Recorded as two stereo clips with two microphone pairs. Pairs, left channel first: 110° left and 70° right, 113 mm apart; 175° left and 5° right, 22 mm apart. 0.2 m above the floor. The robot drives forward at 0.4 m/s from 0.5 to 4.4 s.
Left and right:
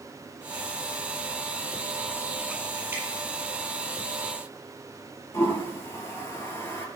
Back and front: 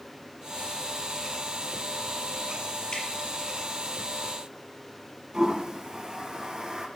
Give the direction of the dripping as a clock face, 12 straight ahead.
5 o'clock.